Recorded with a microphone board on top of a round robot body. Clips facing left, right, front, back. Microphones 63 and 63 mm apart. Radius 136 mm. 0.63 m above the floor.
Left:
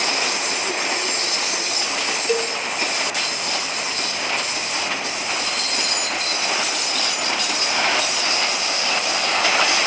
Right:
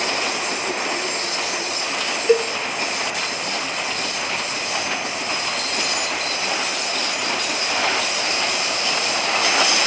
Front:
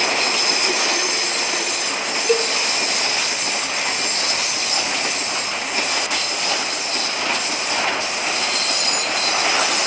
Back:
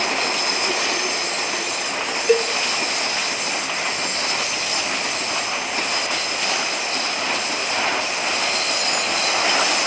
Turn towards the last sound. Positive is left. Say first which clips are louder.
# right 6 dB, back 2 dB
turn(degrees=-115)